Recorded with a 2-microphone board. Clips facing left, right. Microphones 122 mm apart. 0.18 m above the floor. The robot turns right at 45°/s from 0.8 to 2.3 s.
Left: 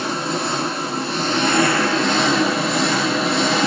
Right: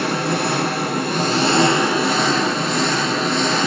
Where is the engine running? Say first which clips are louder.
Right 3 dB; 65° right, 1.3 m; by 3.7 s straight ahead, 1.3 m.